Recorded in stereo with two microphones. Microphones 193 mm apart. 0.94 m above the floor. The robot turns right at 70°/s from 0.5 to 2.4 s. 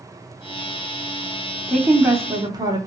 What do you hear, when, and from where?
1.7 s a woman speaking: centre (ahead or behind), 0.7 m; by 2.8 s 20° right (ahead or behind), 0.7 m